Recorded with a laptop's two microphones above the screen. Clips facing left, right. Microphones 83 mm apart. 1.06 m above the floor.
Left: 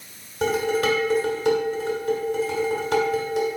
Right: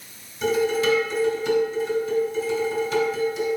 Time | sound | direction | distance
0.4 | dishes clattering | 60° left (ahead or behind) | 2.5 m